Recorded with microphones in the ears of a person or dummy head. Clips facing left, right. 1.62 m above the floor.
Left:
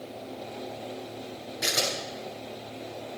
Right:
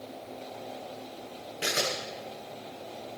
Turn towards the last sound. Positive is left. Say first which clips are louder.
# even
turn(degrees=-35)  # may be behind; listen again after turning